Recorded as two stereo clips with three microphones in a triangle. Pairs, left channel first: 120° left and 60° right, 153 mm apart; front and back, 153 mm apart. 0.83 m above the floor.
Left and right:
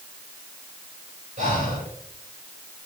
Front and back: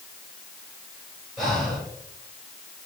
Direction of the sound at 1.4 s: 90° right.